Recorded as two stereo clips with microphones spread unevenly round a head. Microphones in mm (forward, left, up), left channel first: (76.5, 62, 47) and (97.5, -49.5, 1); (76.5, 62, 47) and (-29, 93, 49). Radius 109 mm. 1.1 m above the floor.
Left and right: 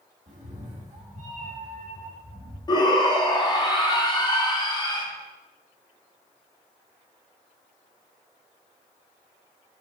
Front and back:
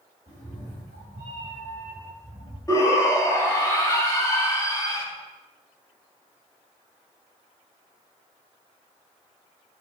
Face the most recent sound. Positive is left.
turn(degrees=45)